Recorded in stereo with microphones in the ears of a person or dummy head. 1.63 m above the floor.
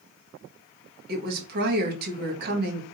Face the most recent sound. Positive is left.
turn(degrees=-45)  # may be behind; listen again after turning